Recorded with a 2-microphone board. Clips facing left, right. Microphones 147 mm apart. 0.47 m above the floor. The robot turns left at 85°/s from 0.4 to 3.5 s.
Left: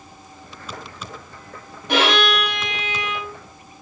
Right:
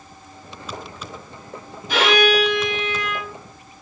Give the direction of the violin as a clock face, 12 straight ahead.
8 o'clock.